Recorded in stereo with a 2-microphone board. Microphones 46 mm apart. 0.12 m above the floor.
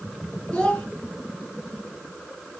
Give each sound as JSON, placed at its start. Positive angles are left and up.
{"t": 0.5, "sound": "a child speaking", "side_deg": 20, "distance_m": 1.0}